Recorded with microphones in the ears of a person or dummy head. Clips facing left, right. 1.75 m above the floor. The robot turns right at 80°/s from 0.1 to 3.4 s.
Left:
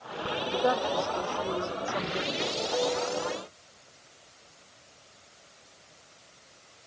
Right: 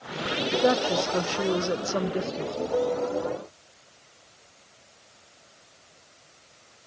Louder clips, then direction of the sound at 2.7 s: Right 4 dB; 120° right.